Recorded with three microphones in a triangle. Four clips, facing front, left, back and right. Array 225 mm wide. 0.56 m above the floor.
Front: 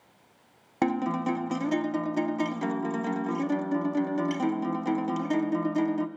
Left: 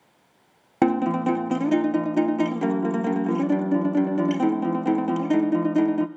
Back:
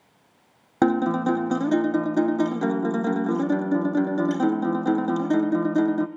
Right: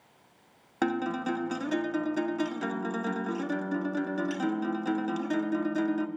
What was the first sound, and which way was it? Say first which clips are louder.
A guitar: left 8 dB, back 6 dB; 135° left.